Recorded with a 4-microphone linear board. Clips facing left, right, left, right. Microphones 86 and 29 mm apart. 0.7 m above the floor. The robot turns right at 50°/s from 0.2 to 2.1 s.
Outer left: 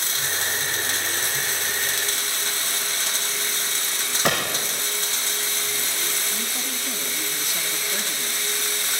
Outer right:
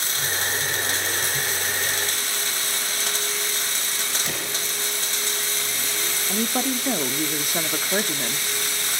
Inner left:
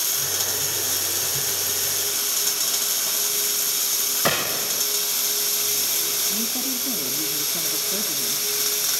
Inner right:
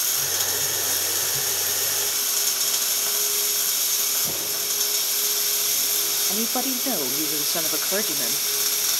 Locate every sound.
4.2 s a gunshot: 70° left (ahead or behind), 1.8 m
6.3 s a woman speaking: 50° right (ahead or behind), 1.2 m